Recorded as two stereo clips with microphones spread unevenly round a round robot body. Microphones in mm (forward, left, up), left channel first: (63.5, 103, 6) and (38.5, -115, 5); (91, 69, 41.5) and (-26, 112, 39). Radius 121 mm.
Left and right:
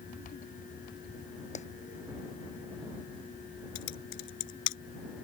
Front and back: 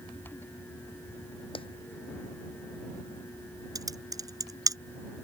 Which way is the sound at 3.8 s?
100° left.